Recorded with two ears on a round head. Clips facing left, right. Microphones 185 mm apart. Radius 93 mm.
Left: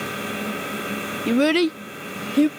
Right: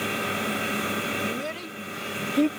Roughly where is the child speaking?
Left.